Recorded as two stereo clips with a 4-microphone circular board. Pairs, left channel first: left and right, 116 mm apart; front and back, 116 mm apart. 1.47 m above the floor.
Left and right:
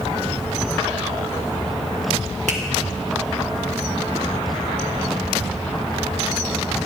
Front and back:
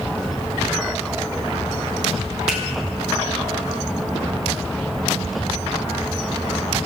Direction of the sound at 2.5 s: 95° right.